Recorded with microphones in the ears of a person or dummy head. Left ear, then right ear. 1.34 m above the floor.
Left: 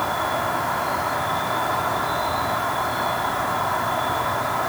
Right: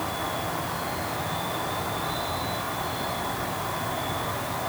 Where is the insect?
50° left (ahead or behind), 3 m.